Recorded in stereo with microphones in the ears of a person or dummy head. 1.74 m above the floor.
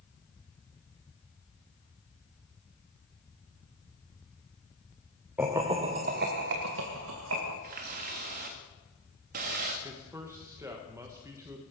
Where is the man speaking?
10° right (ahead or behind), 1.4 m.